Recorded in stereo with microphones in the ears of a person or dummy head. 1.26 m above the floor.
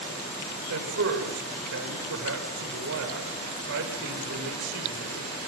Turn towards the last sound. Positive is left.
turn(degrees=-70)  # may be behind; listen again after turning